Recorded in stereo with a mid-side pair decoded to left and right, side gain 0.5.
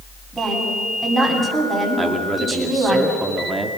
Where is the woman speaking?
20° right, 9 m.